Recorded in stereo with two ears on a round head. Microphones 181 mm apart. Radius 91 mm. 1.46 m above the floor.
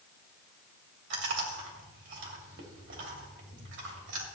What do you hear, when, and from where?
1.1 s chewing: 65° right (ahead or behind), 3 m